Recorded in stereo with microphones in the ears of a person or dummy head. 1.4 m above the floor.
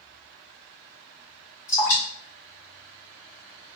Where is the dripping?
15° left (ahead or behind), 1.8 m.